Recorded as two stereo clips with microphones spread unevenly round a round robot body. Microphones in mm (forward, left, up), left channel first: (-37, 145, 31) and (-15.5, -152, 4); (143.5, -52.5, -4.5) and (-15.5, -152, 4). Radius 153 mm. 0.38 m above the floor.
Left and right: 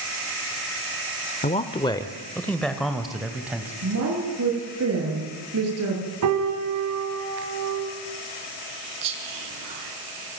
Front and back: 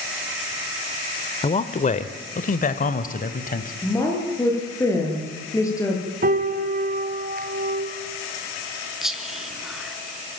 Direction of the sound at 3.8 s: 40° right.